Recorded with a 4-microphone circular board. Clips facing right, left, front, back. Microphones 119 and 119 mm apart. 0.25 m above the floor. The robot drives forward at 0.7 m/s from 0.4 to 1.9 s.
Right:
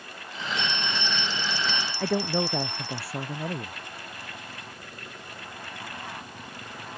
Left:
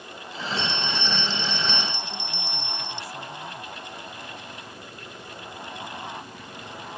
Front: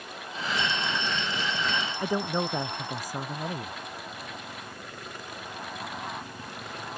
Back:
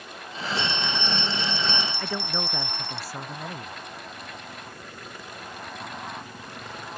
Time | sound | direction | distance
0.6 | a bell | 165° right | ?
2.0 | a man speaking | 75° right | ?